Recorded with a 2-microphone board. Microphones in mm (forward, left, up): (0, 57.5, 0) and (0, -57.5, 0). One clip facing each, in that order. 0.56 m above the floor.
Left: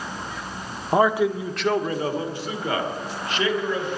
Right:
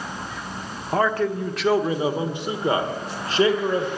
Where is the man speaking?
15° left (ahead or behind), 1.0 m; by 3.9 s 40° right (ahead or behind), 2 m.